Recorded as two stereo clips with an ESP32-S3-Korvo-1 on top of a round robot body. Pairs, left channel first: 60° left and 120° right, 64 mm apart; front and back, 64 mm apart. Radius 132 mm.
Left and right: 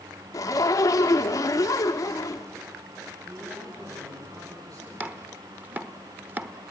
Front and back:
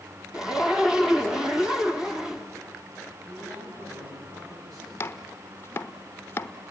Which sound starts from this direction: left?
A zipper, at 0.3 s.